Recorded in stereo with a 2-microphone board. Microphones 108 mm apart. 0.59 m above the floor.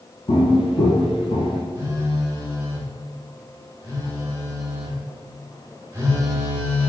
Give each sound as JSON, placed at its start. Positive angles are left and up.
{"t": 0.3, "sound": "footsteps", "side_deg": 55, "distance_m": 1.0}
{"t": 1.8, "sound": "a phone buzzing", "side_deg": -25, "distance_m": 1.1}